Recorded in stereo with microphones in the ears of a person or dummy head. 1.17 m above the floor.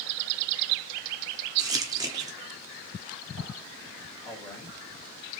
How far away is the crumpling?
About 0.8 m.